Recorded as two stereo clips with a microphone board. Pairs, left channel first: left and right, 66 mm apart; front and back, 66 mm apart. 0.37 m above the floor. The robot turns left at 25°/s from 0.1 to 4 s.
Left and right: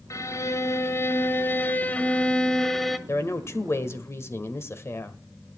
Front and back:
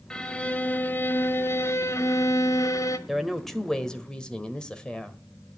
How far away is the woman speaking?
About 1.5 m.